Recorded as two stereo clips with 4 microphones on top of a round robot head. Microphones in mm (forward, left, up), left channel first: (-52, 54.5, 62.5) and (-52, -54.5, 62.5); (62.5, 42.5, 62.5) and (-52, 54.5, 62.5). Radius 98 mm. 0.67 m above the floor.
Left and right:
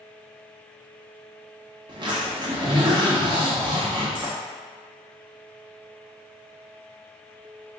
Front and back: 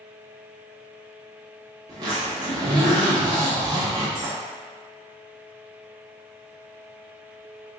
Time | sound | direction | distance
1.9 | a zipper | 130° right | 1.1 m